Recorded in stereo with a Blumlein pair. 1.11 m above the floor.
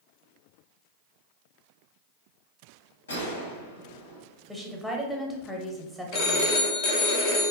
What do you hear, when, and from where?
3.1 s a gunshot: 70° left, 0.7 m
4.5 s a woman speaking: 5° left, 0.7 m
6.1 s a phone ringing: 45° left, 0.6 m